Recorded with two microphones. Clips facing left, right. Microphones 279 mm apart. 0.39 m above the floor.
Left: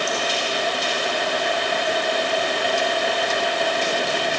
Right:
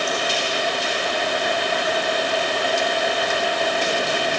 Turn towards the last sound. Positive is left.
No sound to turn to.